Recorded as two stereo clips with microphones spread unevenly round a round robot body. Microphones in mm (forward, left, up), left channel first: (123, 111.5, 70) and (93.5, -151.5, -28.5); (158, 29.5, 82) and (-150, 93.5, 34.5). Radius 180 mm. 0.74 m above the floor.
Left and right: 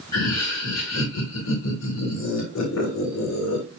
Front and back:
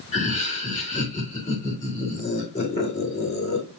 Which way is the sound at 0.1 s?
60° left.